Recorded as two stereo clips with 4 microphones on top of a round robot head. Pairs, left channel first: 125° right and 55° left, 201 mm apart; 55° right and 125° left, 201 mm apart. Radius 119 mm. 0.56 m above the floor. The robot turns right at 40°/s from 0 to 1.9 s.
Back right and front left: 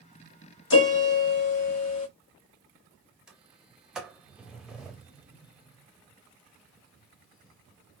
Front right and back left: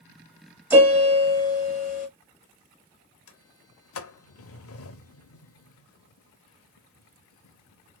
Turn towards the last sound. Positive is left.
turn(degrees=-35)